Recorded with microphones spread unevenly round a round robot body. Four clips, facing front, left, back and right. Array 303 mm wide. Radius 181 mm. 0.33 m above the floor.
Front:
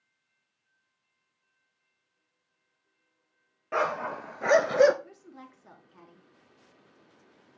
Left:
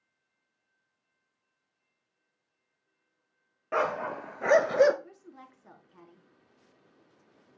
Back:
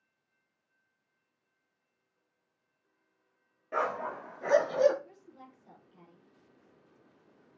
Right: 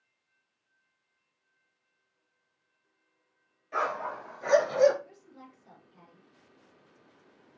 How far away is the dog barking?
About 3 m.